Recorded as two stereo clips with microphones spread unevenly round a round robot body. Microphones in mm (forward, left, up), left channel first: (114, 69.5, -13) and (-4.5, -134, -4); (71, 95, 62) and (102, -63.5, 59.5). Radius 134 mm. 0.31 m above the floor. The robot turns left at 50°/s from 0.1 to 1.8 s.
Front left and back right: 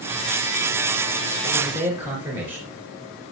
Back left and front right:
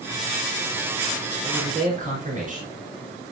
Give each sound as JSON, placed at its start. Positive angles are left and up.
{"t": 1.4, "sound": "a man speaking", "azimuth_deg": -25, "distance_m": 3.5}